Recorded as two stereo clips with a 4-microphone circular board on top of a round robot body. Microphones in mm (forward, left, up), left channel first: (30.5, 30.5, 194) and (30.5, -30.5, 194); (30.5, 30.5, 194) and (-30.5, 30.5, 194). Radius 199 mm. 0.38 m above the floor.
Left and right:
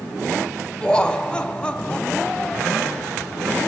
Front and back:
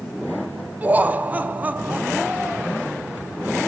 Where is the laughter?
150° left, 1.3 m.